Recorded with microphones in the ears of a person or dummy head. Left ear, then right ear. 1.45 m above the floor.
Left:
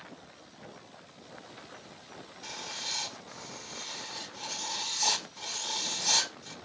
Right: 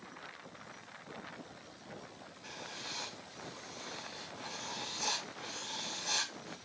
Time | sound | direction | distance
2.4 | writing | 75° left (ahead or behind) | 1.0 m